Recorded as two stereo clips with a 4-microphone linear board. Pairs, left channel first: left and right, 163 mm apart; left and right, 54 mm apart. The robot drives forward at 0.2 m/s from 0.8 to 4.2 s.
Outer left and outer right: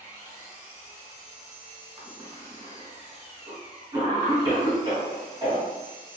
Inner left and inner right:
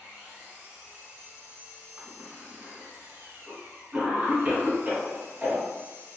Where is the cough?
35° right (ahead or behind), 1.2 m; by 5.7 s 30° right (ahead or behind), 1.4 m.